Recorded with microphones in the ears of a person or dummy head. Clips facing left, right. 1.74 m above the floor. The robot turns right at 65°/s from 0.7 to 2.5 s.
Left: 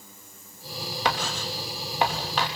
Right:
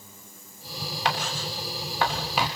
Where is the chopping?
I don't hear chopping.